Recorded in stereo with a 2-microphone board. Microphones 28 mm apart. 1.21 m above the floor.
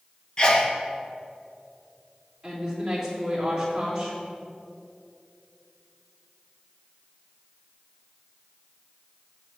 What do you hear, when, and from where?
0.4 s a sneeze: 25° left (ahead or behind), 1.2 m
2.4 s a woman speaking: 20° right (ahead or behind), 3 m